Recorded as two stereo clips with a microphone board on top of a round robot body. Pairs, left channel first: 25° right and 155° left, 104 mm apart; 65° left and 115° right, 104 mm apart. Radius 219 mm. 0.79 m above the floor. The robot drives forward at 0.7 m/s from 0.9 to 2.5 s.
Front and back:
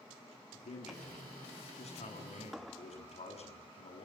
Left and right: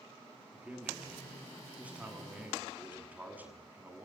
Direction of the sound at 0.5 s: 30° right.